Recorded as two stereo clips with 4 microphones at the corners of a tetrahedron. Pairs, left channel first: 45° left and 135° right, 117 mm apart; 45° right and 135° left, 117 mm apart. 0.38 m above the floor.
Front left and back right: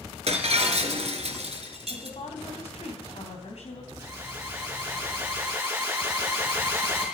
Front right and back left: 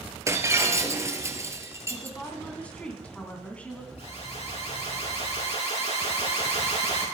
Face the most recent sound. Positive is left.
turn(degrees=-65)